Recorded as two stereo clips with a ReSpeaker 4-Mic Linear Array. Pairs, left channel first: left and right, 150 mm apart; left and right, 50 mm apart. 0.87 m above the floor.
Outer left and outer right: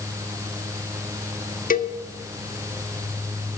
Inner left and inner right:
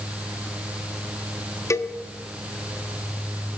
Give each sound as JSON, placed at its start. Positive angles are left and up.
{"t": 1.7, "sound": "a cowbell", "side_deg": 70, "distance_m": 1.1}